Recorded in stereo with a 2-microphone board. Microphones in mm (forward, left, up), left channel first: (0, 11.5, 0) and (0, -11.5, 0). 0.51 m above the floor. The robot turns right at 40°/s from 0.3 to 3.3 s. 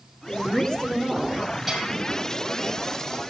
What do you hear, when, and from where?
0.3 s a woman speaking: 120° left, 2 m; by 1.4 s 165° left, 2 m
1.7 s a bell: centre (ahead or behind), 5.5 m; by 1.9 s 10° right (ahead or behind), 5.5 m